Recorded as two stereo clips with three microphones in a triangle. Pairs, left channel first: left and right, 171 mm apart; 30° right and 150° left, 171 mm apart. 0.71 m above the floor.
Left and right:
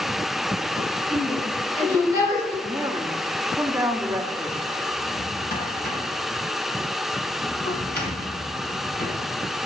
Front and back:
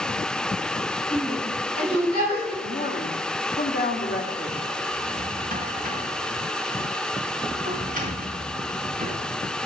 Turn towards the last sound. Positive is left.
turn(degrees=110)